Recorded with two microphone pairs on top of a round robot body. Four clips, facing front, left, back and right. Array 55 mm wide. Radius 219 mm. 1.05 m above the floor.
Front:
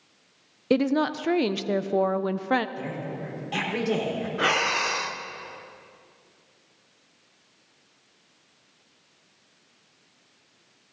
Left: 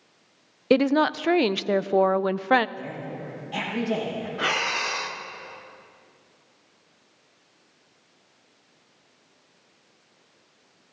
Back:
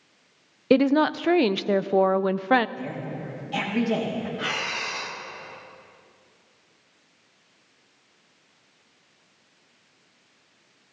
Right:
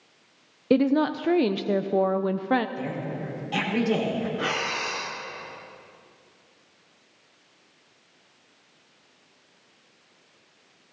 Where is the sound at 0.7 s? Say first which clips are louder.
Left 1 dB, back 4 dB; 125° left, 0.5 m.